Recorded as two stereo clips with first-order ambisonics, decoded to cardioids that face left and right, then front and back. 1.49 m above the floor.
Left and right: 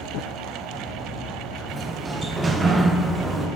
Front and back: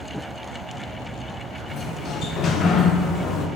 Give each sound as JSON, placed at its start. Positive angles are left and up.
{"t": 1.7, "sound": "a sliding door", "azimuth_deg": -30, "distance_m": 0.6}